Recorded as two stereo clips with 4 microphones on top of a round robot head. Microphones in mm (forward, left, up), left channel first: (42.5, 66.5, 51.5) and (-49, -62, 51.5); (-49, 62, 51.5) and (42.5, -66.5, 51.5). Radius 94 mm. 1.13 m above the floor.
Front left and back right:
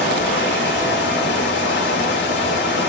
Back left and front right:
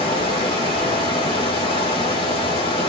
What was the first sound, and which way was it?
Running water, 65° left.